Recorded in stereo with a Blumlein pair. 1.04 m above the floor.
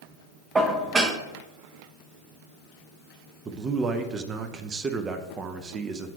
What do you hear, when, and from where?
0.6 s dishes clattering: 20° right, 0.8 m
3.5 s a man speaking: 20° right, 0.7 m